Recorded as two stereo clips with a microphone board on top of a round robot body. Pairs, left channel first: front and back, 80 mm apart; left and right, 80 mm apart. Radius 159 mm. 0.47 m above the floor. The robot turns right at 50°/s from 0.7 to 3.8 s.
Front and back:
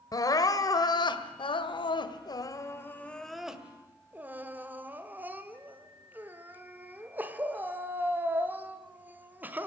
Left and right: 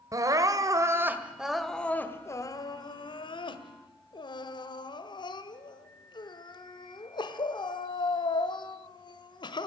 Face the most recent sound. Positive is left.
turn(degrees=110)